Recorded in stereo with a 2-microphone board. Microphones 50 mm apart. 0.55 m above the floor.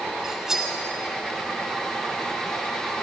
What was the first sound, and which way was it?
Cutlery clinking, 10° right (ahead or behind).